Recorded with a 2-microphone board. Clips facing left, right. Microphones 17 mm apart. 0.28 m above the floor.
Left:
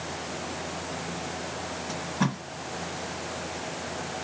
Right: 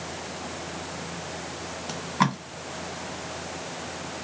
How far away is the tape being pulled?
About 1.7 m.